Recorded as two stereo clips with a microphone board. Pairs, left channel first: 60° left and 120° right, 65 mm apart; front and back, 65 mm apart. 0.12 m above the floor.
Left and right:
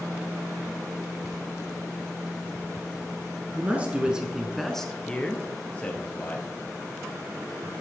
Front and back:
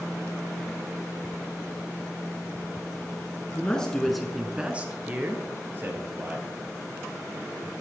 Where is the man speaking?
65° right, 1.6 m; by 6.5 s 125° left, 3 m.